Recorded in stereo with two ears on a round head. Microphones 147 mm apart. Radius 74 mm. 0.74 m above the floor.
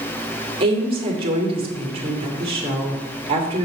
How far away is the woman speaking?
About 2 m.